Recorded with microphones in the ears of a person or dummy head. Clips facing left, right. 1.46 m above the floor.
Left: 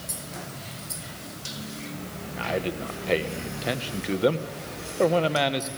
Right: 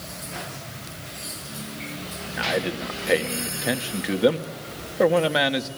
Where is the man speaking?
10° right (ahead or behind), 1.5 m.